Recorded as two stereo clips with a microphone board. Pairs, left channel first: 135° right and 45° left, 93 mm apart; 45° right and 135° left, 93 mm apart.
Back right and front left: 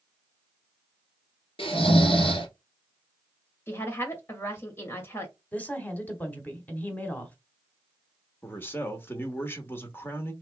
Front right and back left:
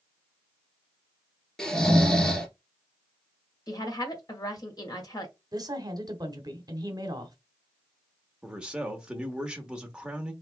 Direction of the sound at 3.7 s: 75° right.